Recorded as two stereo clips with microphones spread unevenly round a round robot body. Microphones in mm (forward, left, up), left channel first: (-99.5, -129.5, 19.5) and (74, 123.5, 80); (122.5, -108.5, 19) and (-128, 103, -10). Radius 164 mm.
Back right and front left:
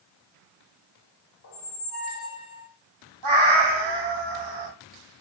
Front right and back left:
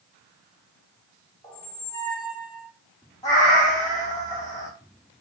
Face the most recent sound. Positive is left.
turn(degrees=40)